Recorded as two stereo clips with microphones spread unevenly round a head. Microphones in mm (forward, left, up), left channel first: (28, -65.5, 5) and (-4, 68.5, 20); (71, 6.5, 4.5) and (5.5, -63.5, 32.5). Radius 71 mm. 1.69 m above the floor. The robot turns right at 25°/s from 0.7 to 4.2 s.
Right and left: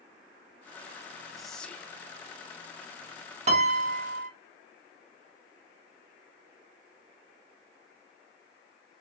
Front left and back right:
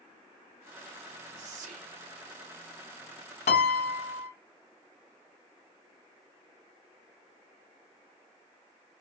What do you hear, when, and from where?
1.4 s whispering: 165° right, 0.6 m; by 2.0 s 150° right, 0.6 m
3.5 s a piano: 70° left, 0.6 m; by 4.3 s 85° left, 0.6 m